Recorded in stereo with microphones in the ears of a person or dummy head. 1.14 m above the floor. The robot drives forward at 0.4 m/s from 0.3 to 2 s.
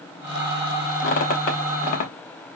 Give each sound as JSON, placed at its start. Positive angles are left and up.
{"t": 1.0, "sound": "a squeak", "side_deg": 50, "distance_m": 0.7}